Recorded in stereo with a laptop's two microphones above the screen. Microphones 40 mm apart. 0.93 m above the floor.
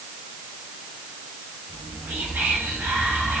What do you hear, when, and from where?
1.7 s whispering: 70° right (ahead or behind), 1.9 m